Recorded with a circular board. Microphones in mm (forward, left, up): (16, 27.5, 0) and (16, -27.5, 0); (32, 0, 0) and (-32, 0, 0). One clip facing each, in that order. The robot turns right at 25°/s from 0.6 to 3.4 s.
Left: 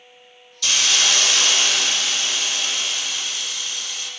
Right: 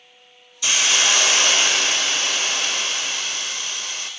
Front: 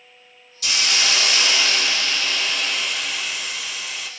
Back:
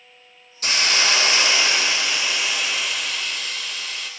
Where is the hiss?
150° right, 0.6 m; by 4.1 s 80° right, 0.6 m.